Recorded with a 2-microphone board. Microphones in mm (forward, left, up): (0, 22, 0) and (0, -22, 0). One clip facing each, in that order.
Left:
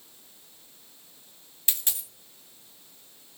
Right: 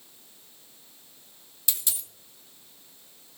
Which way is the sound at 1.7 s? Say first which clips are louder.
Even; 40° left (ahead or behind).